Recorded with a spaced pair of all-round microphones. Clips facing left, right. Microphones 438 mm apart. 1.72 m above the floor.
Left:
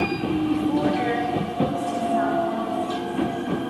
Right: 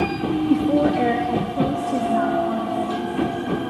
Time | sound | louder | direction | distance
0.5 | a woman speaking | right 7 dB | 70° right (ahead or behind) | 1.2 m